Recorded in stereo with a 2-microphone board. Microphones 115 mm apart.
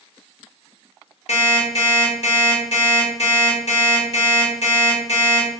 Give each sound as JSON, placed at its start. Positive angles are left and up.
{"t": 1.3, "sound": "an alarm clock", "side_deg": 70, "distance_m": 1.1}